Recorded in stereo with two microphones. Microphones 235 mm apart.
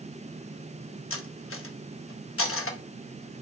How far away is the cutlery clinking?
About 0.6 m.